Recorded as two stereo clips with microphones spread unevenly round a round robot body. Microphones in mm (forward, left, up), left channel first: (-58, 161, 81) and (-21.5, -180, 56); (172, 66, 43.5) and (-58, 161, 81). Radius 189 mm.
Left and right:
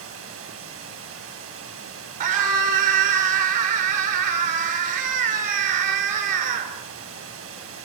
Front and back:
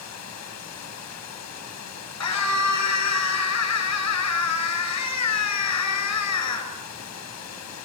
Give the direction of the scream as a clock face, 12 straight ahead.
2 o'clock.